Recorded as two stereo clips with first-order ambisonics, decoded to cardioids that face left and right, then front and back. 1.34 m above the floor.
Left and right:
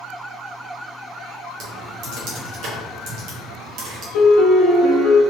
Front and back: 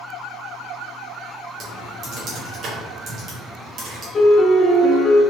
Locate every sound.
1.6 s typing on a keyboard: 125° right, 1.0 m
4.1 s a piano: 70° left, 0.7 m